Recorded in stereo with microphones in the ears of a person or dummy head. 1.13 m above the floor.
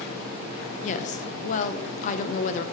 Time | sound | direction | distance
0.8 | a woman speaking | 40° left (ahead or behind) | 0.8 m